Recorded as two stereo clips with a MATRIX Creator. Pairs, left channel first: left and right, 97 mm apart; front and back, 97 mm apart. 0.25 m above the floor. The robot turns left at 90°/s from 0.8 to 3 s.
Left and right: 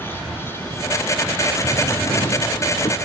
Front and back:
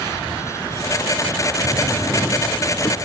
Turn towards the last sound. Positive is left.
turn(degrees=50)